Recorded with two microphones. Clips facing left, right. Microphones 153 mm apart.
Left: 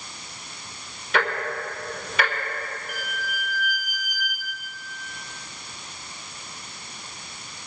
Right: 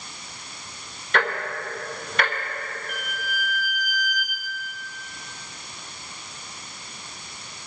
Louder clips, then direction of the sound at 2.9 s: Even; 5° left (ahead or behind).